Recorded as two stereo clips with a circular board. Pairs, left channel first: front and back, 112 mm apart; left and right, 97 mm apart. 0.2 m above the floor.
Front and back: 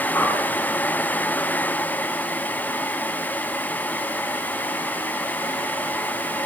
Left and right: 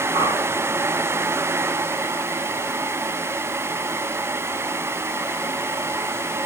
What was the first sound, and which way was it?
A whoosh, 75° right.